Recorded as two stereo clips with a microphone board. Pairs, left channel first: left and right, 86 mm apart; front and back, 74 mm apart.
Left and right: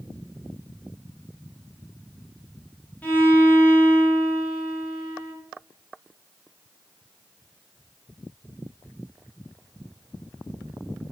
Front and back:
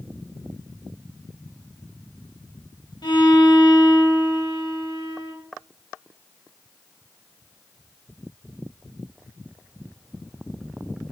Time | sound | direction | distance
3.0 | a violin | 20° left | 0.8 m